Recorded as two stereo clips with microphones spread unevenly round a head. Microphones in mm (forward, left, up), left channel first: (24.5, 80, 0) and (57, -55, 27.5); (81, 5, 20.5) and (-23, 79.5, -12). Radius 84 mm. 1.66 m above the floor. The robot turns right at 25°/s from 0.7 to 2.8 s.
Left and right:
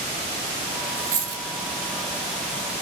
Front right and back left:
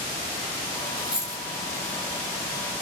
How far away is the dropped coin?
About 1.1 m.